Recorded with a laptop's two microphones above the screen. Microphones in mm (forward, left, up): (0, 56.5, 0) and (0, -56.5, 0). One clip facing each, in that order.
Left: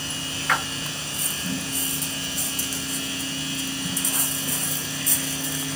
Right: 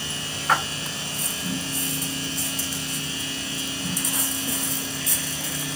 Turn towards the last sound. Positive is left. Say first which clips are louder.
# right 3 dB
turn(degrees=-30)  # may be behind; listen again after turning